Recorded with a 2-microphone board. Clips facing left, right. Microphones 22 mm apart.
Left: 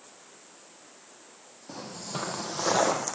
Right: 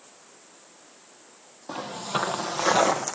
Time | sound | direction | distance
1.7 | footsteps | 55° right (ahead or behind) | 0.9 m